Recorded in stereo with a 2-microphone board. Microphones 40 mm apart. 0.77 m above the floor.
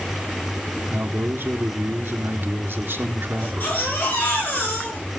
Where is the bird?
I don't hear a bird.